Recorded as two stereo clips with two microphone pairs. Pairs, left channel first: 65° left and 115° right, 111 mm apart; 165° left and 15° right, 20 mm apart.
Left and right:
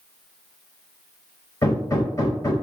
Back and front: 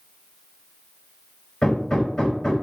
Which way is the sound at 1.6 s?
125° left.